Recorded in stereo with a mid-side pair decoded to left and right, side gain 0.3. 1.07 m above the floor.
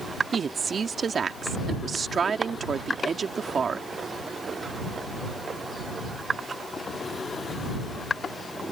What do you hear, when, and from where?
0.3 s a woman speaking: 60° right